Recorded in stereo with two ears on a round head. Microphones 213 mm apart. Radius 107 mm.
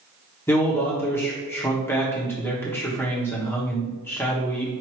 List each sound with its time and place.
0.5 s a man speaking: 10° left (ahead or behind), 1.0 m